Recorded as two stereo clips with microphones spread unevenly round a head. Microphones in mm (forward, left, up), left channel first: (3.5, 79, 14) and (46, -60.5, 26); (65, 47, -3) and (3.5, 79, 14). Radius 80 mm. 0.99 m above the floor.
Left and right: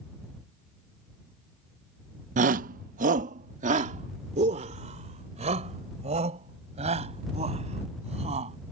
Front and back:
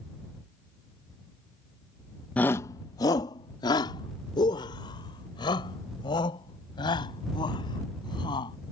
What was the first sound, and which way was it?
A shout, 85° right.